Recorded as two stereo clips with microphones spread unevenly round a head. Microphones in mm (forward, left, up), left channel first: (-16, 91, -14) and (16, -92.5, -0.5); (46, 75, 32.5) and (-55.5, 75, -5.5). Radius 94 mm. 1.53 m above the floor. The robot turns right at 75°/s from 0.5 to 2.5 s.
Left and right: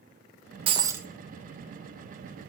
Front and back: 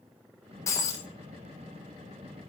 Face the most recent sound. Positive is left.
turn(degrees=105)